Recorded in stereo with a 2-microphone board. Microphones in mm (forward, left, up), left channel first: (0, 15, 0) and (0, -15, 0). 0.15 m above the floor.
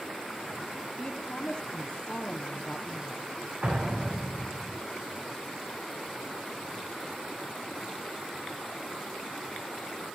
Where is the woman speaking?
25° left (ahead or behind), 4 m.